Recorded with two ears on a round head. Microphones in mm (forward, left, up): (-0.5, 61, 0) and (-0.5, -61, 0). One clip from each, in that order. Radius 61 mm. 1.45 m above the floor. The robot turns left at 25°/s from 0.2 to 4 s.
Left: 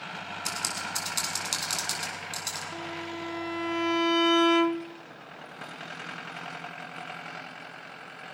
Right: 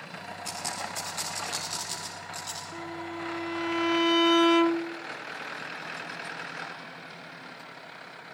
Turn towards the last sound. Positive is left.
turn(degrees=-5)